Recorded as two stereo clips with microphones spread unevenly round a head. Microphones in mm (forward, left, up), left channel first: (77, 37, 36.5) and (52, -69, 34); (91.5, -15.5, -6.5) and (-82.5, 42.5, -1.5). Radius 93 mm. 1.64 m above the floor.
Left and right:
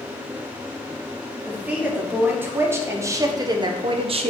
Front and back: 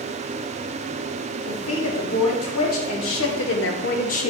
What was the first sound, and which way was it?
A woman speaking, 25° right.